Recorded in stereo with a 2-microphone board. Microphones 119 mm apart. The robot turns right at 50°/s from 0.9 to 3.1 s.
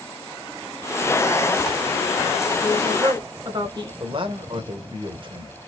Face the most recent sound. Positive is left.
turn(degrees=-50)  # may be behind; listen again after turning